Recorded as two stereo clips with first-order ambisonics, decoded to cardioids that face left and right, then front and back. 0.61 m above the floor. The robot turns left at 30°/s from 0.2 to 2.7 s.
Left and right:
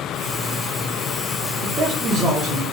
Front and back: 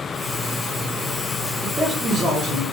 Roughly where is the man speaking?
Right.